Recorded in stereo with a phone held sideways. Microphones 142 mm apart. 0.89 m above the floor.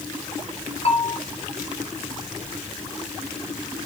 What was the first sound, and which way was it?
A bell, 45° left (ahead or behind).